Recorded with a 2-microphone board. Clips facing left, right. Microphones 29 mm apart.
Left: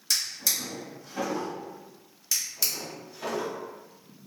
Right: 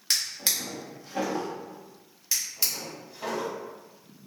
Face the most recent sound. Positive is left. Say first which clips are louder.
# even
turn(degrees=-15)  # may be behind; listen again after turning